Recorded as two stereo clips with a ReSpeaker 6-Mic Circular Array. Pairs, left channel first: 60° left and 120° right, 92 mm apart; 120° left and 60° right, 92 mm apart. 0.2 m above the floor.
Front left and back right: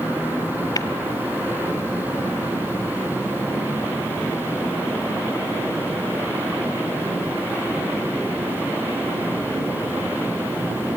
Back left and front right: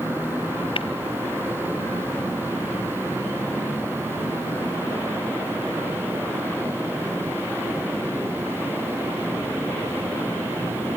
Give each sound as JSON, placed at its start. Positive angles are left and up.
{"t": 0.8, "sound": "tapping", "azimuth_deg": 105, "distance_m": 1.0}